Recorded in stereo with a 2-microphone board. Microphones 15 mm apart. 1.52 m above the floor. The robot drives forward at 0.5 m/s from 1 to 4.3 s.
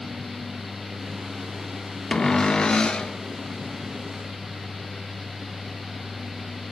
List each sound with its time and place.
2.1 s a cupboard door: 40° left (ahead or behind), 0.7 m; by 3.1 s 55° left (ahead or behind), 0.5 m